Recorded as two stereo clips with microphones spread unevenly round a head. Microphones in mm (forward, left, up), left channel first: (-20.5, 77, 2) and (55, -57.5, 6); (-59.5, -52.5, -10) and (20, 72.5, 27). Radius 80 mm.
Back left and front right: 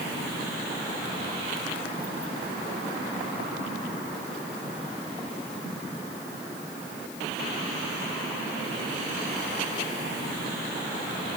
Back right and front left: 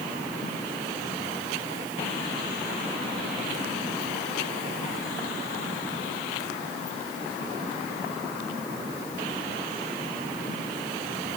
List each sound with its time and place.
Only background noise.